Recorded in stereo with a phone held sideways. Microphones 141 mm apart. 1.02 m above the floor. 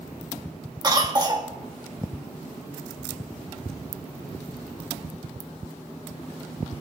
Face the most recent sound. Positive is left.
turn(degrees=-30)  # may be behind; listen again after turning